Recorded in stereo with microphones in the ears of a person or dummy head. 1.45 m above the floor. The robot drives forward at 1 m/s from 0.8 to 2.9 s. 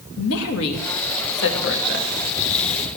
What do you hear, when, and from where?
0.2 s a woman speaking: 90° left, 2 m; by 2.1 s 55° left (ahead or behind), 2.5 m